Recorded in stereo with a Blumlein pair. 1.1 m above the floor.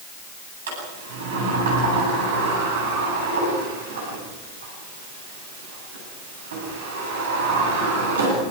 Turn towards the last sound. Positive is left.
turn(degrees=-60)